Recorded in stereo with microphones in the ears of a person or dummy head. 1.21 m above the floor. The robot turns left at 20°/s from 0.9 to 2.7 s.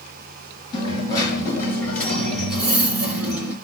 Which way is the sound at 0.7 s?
30° left.